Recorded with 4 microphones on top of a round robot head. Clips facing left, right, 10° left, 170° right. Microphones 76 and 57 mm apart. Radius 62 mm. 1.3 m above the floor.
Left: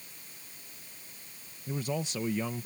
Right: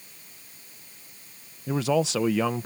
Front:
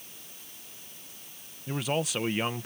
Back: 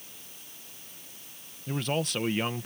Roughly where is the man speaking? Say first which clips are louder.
Right 10 dB, even; right.